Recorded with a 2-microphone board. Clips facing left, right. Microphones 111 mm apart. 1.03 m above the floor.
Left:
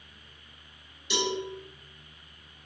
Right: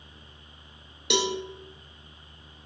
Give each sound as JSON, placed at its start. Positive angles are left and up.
{"t": 1.1, "sound": "a cowbell", "side_deg": -65, "distance_m": 0.5}